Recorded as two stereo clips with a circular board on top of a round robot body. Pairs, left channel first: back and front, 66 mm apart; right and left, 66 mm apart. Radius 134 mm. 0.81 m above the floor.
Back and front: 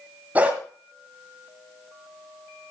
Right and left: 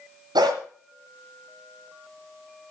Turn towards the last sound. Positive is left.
turn(degrees=70)